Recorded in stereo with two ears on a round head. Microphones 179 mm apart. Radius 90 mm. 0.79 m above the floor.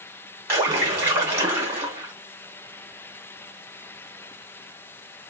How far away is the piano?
I don't hear a piano.